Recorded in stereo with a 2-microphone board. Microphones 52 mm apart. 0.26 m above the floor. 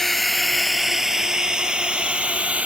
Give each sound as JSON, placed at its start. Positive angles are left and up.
{"t": 0.0, "sound": "a drone", "side_deg": 5}